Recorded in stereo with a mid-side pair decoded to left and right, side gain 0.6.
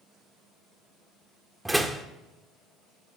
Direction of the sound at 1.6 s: 10° right.